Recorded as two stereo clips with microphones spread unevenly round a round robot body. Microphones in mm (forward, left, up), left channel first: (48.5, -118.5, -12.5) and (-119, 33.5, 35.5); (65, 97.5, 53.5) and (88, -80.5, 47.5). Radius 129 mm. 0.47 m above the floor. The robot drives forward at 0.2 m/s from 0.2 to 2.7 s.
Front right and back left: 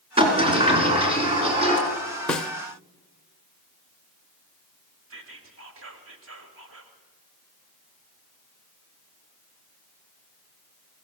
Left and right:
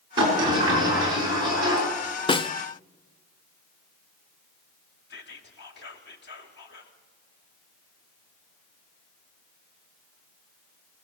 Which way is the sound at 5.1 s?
95° left.